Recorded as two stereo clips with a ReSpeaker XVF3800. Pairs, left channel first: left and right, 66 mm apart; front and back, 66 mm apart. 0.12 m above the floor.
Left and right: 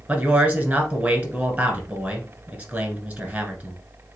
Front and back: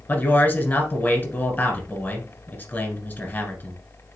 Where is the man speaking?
35° right, 1.6 m.